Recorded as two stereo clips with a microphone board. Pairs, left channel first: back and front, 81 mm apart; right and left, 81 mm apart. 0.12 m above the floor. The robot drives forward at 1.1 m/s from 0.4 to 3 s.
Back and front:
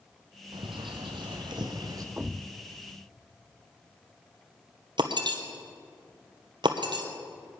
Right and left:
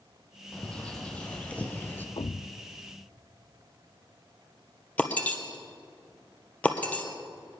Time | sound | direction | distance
0.5 | a bird | 10° right | 2.5 m
2.2 | a thud | 70° right | 0.6 m
5.0 | breaking glass | 20° right | 1.5 m